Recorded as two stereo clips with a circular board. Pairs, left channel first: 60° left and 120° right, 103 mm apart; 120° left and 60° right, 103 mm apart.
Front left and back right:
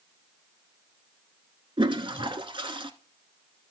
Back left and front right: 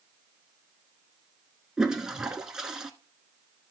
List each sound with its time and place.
1.8 s a toilet flushing: 145° right, 0.9 m